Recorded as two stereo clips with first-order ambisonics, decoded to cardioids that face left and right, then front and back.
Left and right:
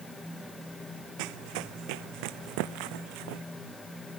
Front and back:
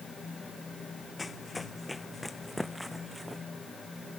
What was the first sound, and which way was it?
Running footsteps, 80° right.